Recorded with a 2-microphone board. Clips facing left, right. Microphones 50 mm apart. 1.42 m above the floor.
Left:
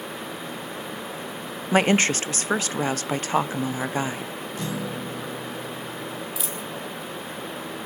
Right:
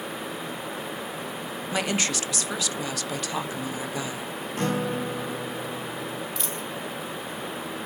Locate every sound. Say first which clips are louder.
1.7 s a woman speaking: left 8 dB; 40° left (ahead or behind), 0.7 m
4.6 s a guitar: right 5 dB; 50° right (ahead or behind), 1.2 m
6.4 s a dropped coin: even; 5° left (ahead or behind), 2.5 m